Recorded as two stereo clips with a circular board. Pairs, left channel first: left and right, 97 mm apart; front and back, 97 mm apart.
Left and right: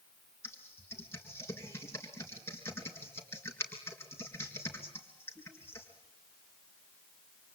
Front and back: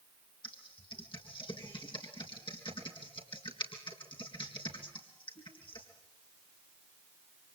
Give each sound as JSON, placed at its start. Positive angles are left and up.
{"t": 0.4, "sound": "typing on a keyboard", "azimuth_deg": 30, "distance_m": 3.5}